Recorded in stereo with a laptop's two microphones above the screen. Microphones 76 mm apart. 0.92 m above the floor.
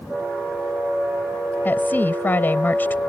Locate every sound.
1.6 s a woman speaking: 25° left (ahead or behind)